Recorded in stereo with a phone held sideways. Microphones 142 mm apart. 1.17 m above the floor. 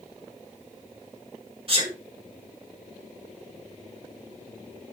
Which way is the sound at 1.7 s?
40° right (ahead or behind).